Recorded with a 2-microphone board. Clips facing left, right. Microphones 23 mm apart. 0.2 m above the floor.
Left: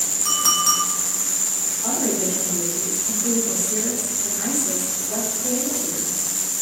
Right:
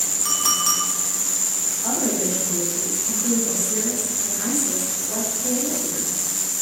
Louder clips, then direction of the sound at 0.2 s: Left 3 dB; 10° right (ahead or behind).